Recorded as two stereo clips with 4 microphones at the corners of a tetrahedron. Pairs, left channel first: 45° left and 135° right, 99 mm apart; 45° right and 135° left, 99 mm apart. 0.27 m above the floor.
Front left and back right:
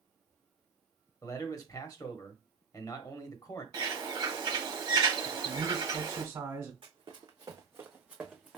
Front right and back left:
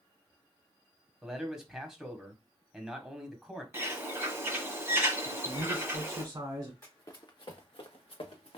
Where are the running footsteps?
105° right, 0.9 m; by 8.6 s 45° right, 1.0 m.